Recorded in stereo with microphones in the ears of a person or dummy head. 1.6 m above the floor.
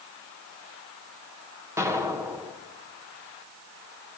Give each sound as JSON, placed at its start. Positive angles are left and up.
{"t": 1.8, "sound": "an explosion", "side_deg": -15, "distance_m": 1.1}